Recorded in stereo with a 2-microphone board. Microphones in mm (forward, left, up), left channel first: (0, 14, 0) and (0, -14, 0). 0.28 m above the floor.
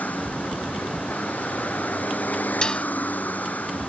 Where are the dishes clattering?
30° left (ahead or behind).